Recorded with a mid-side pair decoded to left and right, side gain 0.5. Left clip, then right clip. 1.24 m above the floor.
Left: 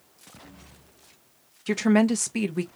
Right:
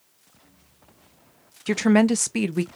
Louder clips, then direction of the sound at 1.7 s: Right 3 dB; 30° right.